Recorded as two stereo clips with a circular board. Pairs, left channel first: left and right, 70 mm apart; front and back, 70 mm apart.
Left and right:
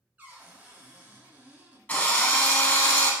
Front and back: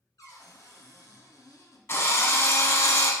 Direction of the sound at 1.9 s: 35° left.